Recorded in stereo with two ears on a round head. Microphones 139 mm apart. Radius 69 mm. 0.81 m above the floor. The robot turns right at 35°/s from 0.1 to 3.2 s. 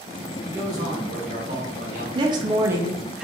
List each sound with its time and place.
0.4 s a man speaking: 165° right, 1.0 m; by 2.0 s 105° right, 1.0 m
2.1 s a woman speaking: 45° right, 0.6 m; by 3.2 s 10° right, 0.6 m